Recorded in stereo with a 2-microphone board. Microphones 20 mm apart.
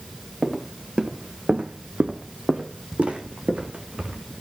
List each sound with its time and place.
0.4 s footsteps: 35° right (ahead or behind), 1.8 m; by 4.2 s 60° right (ahead or behind), 2.5 m